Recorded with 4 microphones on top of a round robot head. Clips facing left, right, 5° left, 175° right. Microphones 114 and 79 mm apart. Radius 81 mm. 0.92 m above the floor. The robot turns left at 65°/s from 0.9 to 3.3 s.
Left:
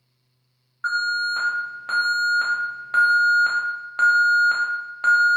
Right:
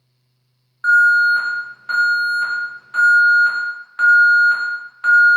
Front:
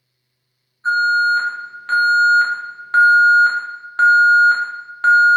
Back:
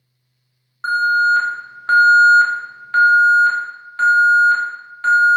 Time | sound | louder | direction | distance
0.8 | an alarm | right 11 dB, even | 165° right | 1.0 m